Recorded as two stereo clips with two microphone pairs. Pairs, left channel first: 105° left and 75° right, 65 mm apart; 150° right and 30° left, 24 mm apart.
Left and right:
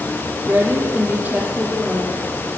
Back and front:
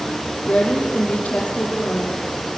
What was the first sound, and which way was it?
A woman speaking, 140° right.